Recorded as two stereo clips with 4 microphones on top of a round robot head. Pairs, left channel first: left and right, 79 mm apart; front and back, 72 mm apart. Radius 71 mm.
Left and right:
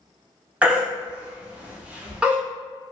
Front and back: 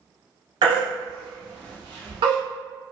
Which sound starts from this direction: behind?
A baby crying, at 0.6 s.